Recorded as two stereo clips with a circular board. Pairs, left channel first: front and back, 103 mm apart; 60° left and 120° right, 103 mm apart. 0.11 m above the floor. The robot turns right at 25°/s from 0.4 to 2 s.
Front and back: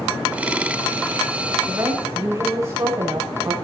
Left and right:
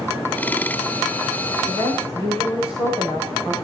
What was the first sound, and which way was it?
A woman speaking, 110° left.